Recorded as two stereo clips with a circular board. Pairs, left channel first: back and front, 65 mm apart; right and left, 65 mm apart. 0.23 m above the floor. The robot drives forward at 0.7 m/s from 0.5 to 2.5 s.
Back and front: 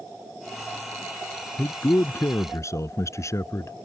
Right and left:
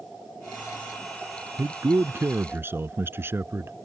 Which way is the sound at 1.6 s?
130° left.